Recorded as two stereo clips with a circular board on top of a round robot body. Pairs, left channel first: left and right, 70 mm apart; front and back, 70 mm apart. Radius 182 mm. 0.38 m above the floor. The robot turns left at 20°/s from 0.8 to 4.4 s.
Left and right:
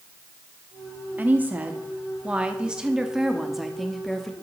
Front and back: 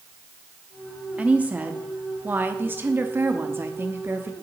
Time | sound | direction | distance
1.2 | a woman speaking | 125° right | 1.4 m